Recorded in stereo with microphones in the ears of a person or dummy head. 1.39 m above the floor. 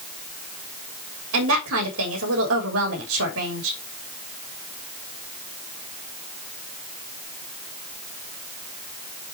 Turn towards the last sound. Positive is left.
turn(degrees=-80)